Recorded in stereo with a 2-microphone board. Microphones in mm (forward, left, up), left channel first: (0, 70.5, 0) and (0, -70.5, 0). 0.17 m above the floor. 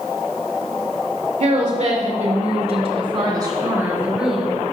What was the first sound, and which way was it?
A woman speaking, 55° right (ahead or behind).